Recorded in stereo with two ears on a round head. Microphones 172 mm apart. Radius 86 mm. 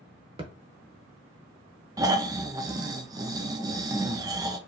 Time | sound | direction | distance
0.4 | a thud | 30° right (ahead or behind) | 0.9 m
2.0 | snoring | 20° right (ahead or behind) | 0.5 m